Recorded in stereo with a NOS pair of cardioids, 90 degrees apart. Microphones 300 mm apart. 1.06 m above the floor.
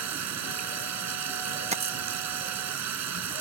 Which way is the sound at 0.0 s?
55° right.